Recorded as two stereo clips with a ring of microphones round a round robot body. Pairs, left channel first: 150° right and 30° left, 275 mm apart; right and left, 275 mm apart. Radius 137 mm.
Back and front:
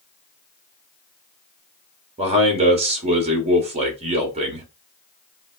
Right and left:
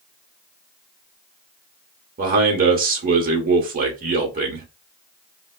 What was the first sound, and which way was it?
A man speaking, 75° left.